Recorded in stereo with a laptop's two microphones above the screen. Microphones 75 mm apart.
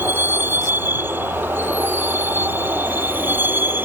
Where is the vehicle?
30° right (ahead or behind); by 3.9 s 25° right (ahead or behind).